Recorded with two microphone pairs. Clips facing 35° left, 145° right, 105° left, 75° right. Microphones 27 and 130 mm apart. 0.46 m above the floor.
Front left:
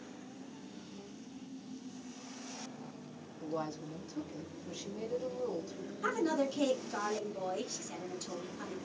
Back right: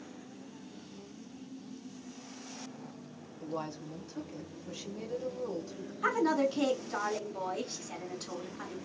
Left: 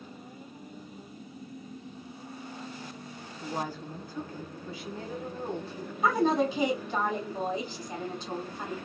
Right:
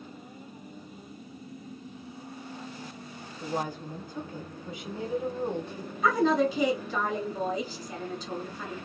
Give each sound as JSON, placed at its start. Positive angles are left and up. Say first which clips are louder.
{"t": 3.4, "sound": "a woman speaking", "louder": "even, right 2 dB", "azimuth_deg": -50, "distance_m": 0.8}
{"t": 6.0, "sound": "a woman speaking", "louder": "back right 4 dB, right 1 dB", "azimuth_deg": 160, "distance_m": 1.5}